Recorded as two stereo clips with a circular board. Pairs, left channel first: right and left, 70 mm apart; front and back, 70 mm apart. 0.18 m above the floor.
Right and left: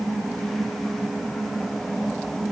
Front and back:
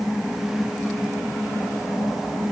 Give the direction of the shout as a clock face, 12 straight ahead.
I don't hear a shout.